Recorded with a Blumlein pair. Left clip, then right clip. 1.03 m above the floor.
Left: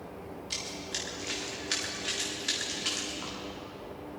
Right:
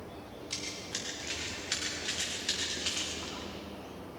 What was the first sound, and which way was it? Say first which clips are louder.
Running footsteps: left 2 dB; 50° left.